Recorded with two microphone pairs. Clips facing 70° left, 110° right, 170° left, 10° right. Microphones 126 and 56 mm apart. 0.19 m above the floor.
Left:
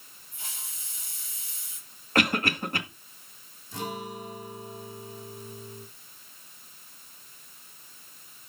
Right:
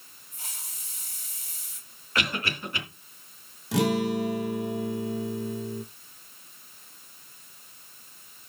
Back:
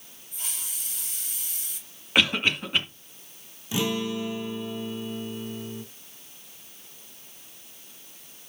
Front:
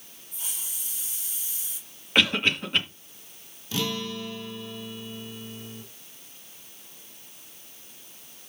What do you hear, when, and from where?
0.3 s a hiss: 160° right, 4 m
2.1 s a cough: 90° left, 2.5 m
3.7 s a guitar: 120° right, 0.8 m